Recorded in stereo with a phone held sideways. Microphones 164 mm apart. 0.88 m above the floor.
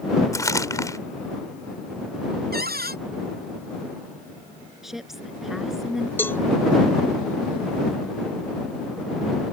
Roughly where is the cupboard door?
Right.